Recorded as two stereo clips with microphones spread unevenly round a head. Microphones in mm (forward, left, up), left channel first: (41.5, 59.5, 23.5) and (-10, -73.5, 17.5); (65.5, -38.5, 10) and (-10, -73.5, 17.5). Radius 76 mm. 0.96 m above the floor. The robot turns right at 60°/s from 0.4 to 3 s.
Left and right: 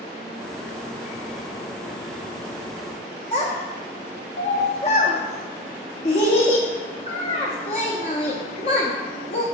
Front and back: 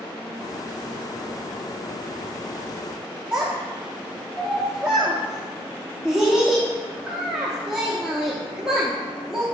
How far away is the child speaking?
About 0.8 m.